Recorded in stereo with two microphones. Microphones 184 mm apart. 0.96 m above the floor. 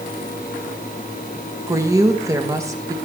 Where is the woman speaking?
15° right (ahead or behind), 1.0 m.